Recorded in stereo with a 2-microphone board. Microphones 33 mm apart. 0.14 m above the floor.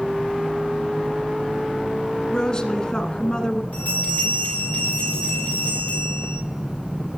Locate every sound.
2.3 s a woman speaking: 25° left (ahead or behind), 1.2 m
3.7 s a bell: 55° left (ahead or behind), 7 m